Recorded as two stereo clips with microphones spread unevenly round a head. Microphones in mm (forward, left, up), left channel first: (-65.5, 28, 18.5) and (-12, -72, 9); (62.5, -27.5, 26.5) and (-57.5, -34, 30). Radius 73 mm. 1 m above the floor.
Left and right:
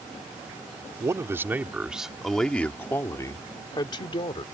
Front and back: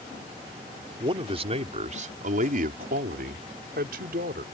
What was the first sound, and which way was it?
A man speaking, 125° right.